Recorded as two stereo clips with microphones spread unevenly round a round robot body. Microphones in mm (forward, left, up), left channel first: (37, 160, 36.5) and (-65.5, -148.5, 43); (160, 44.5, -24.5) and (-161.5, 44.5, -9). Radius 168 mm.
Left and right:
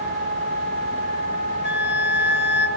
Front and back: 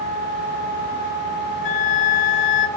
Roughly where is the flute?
Ahead.